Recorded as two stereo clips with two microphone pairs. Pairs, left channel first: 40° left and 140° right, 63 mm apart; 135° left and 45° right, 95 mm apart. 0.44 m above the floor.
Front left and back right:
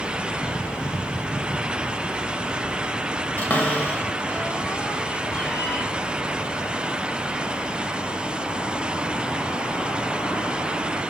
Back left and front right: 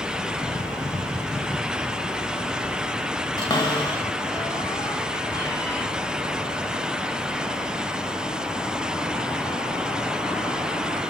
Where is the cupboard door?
100° left, 1.9 m.